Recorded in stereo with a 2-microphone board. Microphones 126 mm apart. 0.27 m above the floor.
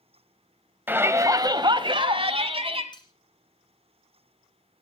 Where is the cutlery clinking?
35° left (ahead or behind), 1.6 m.